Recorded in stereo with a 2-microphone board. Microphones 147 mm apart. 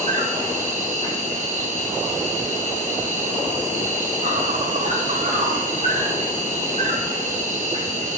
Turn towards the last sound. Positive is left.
turn(degrees=-60)  # may be behind; listen again after turning